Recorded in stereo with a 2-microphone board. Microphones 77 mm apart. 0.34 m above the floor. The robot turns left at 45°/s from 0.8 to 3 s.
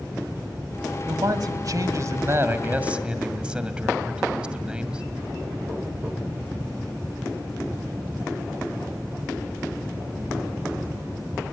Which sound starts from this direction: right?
A man speaking, at 1.1 s.